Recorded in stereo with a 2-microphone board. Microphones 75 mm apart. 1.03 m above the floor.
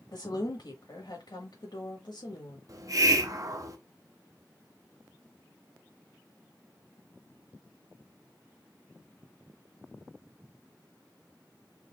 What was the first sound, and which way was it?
A woman speaking, 70° left (ahead or behind).